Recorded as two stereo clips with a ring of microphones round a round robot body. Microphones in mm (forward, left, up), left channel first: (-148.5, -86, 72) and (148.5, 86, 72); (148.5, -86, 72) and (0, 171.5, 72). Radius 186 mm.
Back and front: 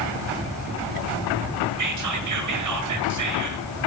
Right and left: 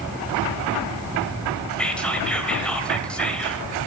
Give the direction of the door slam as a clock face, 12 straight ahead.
No door slam in this recording.